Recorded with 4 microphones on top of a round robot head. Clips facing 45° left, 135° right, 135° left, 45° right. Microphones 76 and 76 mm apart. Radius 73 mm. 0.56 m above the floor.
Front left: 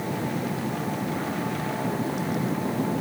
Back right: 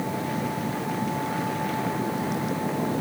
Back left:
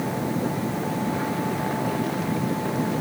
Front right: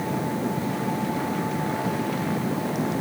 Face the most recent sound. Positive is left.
No sound to turn to.